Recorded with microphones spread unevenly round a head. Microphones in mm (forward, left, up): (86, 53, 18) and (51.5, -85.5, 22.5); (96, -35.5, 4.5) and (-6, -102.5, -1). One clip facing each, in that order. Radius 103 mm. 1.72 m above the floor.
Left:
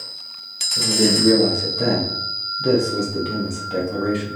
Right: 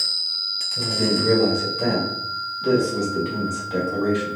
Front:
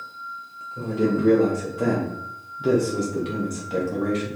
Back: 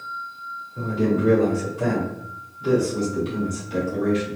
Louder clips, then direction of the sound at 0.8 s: Left 3 dB, even; 115° left.